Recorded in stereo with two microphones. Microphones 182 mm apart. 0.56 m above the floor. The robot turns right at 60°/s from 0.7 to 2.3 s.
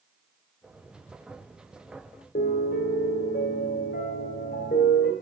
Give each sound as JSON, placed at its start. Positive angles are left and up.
{"t": 2.4, "sound": "a piano", "side_deg": 60, "distance_m": 1.7}